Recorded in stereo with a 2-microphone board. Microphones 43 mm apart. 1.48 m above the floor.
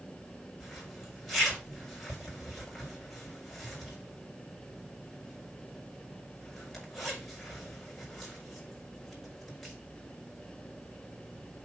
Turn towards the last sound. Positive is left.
turn(degrees=5)  # may be behind; listen again after turning